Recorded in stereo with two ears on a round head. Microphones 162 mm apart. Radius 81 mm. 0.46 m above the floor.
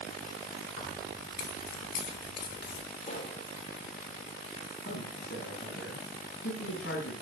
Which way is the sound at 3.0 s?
45° left (ahead or behind).